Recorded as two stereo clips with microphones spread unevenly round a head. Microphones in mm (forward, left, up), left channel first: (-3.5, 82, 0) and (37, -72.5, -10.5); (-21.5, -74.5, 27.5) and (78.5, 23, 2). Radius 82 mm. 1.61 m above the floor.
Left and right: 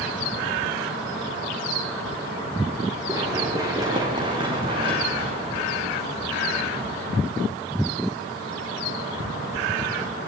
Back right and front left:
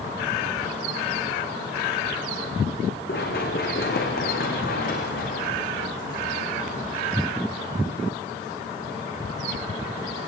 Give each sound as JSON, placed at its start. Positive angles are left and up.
{"t": 3.1, "sound": "running footsteps", "azimuth_deg": -150, "distance_m": 5.0}